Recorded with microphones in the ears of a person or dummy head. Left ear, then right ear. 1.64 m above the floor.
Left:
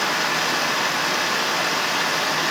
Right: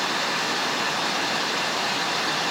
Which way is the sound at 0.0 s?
45° left (ahead or behind).